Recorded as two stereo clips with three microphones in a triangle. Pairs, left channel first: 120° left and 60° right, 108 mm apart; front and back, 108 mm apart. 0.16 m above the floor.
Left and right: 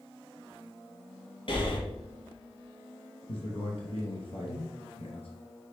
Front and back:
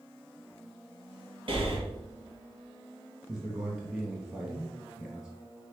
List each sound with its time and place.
1.5 s breathing: 150° left, 1.7 m
3.3 s a man speaking: 110° left, 2.5 m